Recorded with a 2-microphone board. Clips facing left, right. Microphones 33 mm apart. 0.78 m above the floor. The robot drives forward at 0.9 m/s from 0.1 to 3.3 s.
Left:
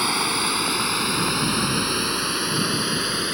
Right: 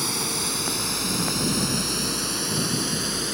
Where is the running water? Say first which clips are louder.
Left 6 dB; 35° left (ahead or behind); by 3.4 s 25° left (ahead or behind).